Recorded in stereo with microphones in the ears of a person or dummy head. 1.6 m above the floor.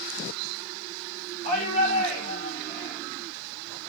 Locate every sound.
1.4 s a shout: 55° right (ahead or behind), 6.5 m